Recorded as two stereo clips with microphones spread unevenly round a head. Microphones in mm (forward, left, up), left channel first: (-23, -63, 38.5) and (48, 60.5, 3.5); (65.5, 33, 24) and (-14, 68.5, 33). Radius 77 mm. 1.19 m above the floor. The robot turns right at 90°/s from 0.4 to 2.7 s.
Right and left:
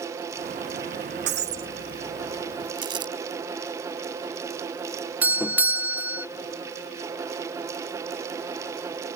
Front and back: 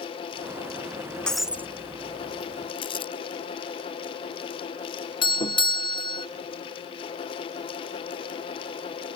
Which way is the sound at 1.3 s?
55° left.